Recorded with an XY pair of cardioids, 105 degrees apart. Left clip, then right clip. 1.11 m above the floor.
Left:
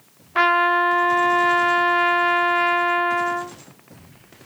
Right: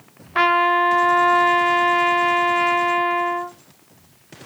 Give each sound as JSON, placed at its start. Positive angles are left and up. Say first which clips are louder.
{"t": 0.3, "sound": "a trumpet", "louder": "right 1 dB", "azimuth_deg": -10, "distance_m": 0.6}